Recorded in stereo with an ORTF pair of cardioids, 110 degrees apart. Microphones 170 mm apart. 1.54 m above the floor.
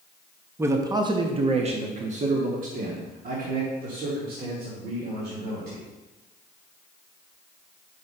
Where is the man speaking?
15° right, 0.9 m; by 5.8 s 65° right, 3 m.